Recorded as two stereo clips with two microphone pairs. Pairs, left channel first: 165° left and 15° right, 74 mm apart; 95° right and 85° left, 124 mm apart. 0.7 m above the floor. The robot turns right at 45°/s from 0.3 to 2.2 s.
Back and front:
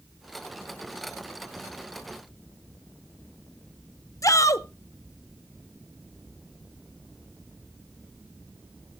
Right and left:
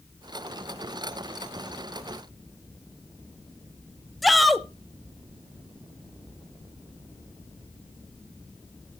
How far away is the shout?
About 0.7 m.